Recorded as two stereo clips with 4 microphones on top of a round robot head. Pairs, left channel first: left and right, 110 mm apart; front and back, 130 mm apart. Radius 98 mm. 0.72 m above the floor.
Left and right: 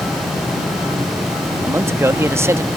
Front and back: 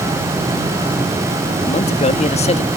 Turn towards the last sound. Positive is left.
turn(degrees=-25)